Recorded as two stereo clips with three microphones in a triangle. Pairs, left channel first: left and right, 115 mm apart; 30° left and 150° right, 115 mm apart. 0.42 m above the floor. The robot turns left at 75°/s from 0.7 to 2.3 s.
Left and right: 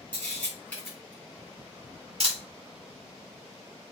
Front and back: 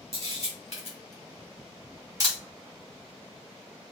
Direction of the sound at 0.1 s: 15° left.